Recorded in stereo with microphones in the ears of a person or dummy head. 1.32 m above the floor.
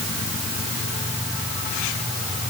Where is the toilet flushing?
I don't hear a toilet flushing.